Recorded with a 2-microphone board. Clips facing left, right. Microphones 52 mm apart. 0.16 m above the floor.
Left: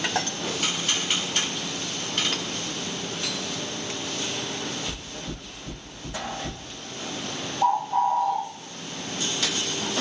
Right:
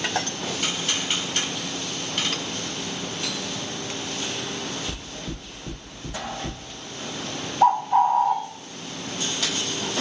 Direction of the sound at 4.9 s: 60° right (ahead or behind).